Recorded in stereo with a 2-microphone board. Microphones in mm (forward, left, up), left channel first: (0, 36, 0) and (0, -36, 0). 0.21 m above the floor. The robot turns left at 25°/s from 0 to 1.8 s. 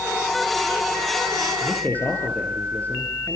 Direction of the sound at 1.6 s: 30° left (ahead or behind).